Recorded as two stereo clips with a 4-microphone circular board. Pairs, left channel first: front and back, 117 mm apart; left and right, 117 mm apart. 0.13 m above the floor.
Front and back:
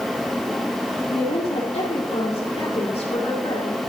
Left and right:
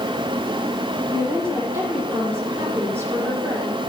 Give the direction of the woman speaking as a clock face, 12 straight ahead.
1 o'clock.